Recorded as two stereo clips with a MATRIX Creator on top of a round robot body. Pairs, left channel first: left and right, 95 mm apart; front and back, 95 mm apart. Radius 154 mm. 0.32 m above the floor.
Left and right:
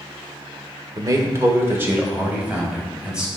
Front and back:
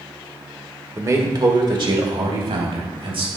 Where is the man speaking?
125° right, 2.0 m; by 3.3 s 170° right, 4.5 m.